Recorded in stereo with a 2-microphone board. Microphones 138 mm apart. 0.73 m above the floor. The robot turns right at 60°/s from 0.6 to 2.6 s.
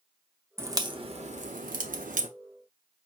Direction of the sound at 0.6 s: 15° right (ahead or behind).